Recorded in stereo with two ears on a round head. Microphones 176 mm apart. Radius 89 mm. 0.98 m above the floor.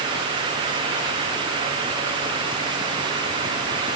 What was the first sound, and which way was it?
Only background noise.